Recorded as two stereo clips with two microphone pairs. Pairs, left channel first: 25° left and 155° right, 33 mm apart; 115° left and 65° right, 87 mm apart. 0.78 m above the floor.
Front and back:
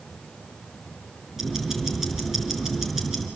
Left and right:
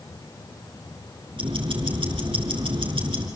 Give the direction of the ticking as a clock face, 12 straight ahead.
2 o'clock.